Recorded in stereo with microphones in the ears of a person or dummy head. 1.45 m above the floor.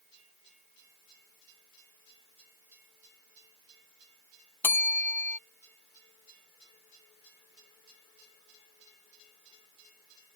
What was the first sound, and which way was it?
A bell, 10° left (ahead or behind).